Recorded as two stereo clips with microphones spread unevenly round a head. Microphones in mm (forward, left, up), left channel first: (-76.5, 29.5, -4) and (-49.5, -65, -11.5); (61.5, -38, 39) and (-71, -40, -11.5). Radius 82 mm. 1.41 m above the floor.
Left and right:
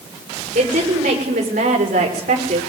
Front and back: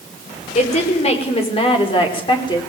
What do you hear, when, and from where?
0.6 s a woman speaking: 40° right, 5.5 m; by 2.7 s 60° right, 5 m